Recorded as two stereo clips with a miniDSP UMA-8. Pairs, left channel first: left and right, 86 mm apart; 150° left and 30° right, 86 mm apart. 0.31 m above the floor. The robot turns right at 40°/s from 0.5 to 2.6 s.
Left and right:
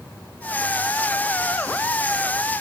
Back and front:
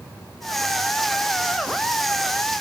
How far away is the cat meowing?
I don't hear a cat meowing.